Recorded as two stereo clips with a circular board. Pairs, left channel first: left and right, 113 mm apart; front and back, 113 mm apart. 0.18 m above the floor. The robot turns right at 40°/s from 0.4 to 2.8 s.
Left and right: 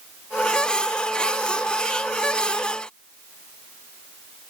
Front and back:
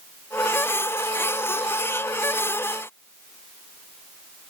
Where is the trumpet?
No trumpet in this recording.